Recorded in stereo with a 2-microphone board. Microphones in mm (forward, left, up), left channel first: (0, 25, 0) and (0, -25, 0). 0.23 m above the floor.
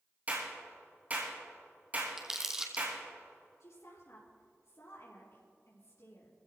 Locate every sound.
0.3 s a clap: 35° right (ahead or behind), 4.5 m
2.2 s crumpling: 10° right (ahead or behind), 1.6 m
3.6 s a woman speaking: 70° left (ahead or behind), 5 m